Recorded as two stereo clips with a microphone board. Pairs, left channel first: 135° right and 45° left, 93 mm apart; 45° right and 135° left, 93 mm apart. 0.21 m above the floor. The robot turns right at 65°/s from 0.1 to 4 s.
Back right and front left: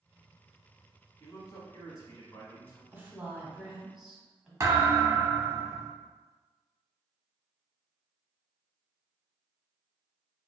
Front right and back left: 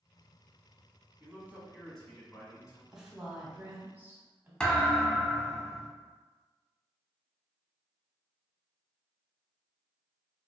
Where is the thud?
25° left, 0.7 m.